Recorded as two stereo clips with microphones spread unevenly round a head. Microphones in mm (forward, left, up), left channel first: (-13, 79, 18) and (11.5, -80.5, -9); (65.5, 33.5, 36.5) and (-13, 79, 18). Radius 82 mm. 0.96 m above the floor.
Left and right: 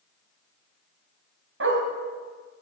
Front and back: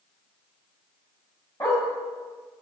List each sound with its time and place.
1.6 s a dog barking: 100° right, 2.5 m